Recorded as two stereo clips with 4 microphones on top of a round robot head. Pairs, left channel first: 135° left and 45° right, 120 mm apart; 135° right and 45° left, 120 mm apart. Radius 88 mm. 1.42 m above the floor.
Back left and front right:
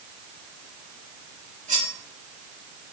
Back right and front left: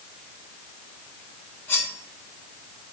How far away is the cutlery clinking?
About 4 m.